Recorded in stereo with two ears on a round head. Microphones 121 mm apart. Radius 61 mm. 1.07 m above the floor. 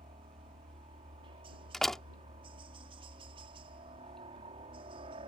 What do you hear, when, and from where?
0.0 s a helicopter: 40° right (ahead or behind)
1.7 s a door slam: 5° left (ahead or behind)